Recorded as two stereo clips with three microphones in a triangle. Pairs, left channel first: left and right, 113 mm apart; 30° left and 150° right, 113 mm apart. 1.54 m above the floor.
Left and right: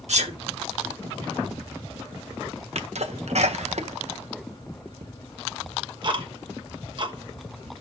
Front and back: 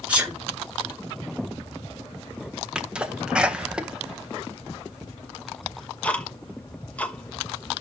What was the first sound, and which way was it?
A sneeze, 70° right.